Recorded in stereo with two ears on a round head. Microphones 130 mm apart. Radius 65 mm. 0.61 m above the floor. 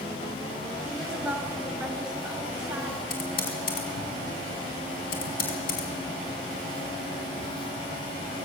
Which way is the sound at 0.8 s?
5° right (ahead or behind).